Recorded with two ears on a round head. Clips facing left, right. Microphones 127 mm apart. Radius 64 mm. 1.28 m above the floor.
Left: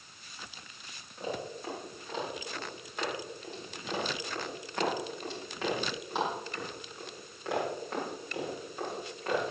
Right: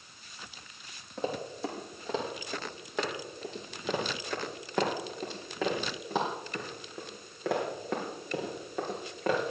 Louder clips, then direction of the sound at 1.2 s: Right 3 dB; 55° right (ahead or behind).